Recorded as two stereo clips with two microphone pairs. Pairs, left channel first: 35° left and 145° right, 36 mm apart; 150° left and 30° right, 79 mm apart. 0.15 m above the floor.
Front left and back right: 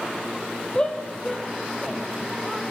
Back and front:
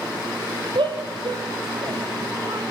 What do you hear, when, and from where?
0.8 s a shout: 30° right, 4 m; by 2.7 s 45° right, 6 m